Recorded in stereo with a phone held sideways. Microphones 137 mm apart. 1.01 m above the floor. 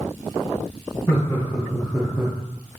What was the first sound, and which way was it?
Laughter, 20° left (ahead or behind).